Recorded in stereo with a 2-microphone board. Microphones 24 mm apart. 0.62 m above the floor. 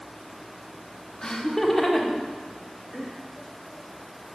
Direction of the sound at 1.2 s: 20° left (ahead or behind).